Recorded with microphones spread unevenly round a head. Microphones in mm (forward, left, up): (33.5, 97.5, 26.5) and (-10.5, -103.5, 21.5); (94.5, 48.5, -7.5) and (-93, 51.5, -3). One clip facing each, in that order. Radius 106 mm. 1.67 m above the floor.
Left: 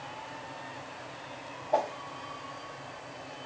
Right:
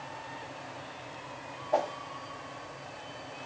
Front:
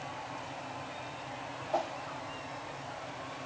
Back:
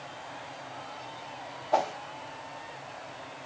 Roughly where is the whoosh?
Behind.